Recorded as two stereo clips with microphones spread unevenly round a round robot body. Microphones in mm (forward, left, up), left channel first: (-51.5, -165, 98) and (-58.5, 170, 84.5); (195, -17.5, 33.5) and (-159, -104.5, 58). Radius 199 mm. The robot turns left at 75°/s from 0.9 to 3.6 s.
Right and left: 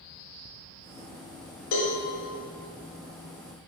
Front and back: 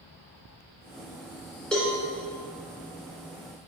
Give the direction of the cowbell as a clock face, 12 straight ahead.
2 o'clock.